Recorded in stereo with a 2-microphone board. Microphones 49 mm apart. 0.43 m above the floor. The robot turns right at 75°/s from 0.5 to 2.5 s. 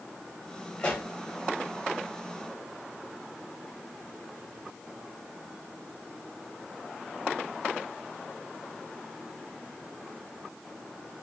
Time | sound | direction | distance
0.8 | a pop | 25° left (ahead or behind) | 1.2 m